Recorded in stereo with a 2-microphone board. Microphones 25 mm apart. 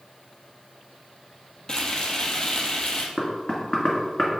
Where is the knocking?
40° left (ahead or behind), 1.7 m.